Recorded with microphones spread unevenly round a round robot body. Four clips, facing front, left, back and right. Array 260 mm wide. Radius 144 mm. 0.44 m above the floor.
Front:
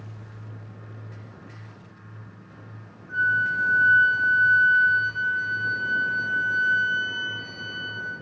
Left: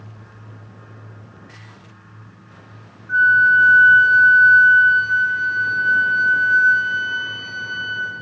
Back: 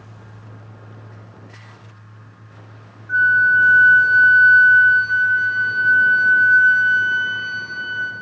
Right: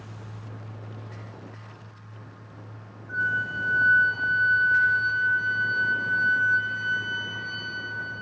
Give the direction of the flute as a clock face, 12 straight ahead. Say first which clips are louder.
Left 14 dB, back 9 dB; 8 o'clock.